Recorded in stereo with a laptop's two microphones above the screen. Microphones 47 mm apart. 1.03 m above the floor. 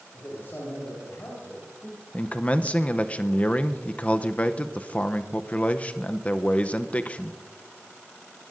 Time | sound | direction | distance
0.1 | a man speaking | 40° left (ahead or behind) | 6 m
2.1 | a man speaking | 30° left (ahead or behind) | 0.6 m